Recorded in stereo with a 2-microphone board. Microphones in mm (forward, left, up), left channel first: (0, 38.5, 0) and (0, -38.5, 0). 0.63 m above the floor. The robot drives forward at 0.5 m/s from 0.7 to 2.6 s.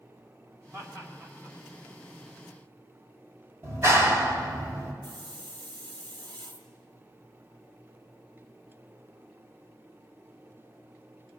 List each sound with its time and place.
0.7 s laughter: 40° right (ahead or behind), 2.5 m; by 1.6 s 35° right (ahead or behind), 2.5 m
3.6 s a clap: 35° right (ahead or behind), 3 m
5.0 s a hiss: 80° right, 1.4 m